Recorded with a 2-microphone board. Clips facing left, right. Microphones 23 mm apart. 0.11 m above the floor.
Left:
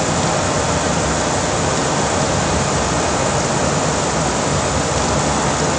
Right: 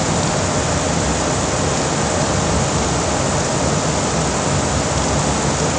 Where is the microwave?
No microwave in this recording.